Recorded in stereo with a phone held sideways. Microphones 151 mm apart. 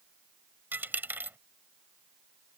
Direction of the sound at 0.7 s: 15° right (ahead or behind).